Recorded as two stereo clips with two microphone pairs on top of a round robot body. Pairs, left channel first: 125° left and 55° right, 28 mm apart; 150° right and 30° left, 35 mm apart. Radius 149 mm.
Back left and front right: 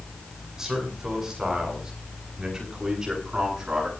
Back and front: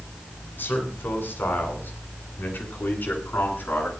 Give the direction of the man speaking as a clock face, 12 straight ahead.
4 o'clock.